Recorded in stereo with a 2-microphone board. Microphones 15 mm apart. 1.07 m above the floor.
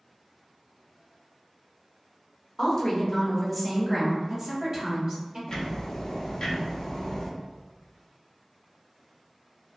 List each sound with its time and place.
2.6 s a woman speaking: 45° left (ahead or behind), 0.8 m; by 5.4 s 30° right (ahead or behind), 1.3 m
5.5 s ticking: 40° left (ahead or behind), 0.7 m